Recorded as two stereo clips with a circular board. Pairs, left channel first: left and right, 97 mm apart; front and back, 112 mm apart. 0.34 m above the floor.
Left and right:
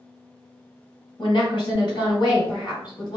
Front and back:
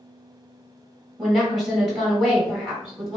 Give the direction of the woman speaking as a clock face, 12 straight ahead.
9 o'clock.